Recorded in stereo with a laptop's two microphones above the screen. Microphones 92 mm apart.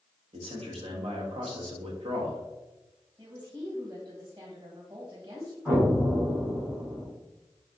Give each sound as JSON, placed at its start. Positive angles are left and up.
{"t": 0.3, "sound": "a man speaking", "side_deg": -80, "distance_m": 1.0}
{"t": 3.2, "sound": "a woman speaking", "side_deg": -50, "distance_m": 1.4}
{"t": 5.7, "sound": "an explosion", "side_deg": -20, "distance_m": 1.8}